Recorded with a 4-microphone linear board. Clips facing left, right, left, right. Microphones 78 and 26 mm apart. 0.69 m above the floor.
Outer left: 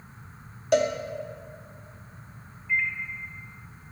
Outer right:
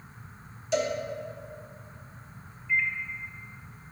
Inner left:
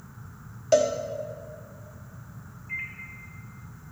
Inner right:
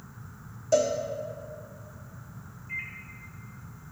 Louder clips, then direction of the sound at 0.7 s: Outer left 5 dB, inner left 3 dB; 60° left (ahead or behind).